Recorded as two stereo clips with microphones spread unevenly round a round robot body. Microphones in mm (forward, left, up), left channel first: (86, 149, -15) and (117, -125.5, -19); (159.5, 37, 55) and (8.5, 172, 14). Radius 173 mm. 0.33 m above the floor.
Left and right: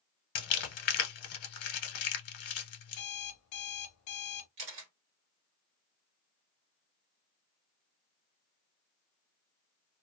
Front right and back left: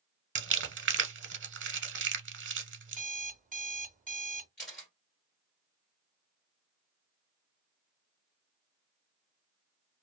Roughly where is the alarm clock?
Left.